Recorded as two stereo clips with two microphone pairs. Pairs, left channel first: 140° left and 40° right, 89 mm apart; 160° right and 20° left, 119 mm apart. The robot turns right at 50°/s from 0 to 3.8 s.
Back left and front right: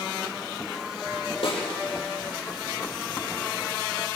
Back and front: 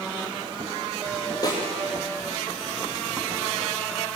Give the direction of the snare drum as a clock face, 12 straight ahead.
7 o'clock.